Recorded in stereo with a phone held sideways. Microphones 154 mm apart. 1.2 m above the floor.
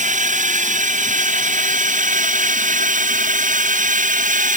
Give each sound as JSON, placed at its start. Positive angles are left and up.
{"t": 0.0, "sound": "a drone", "side_deg": -60}